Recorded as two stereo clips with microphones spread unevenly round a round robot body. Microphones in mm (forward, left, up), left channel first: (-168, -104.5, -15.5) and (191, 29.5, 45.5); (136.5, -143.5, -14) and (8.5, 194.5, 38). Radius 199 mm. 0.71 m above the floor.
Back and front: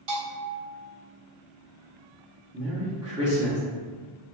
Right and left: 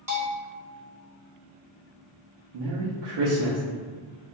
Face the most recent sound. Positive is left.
turn(degrees=110)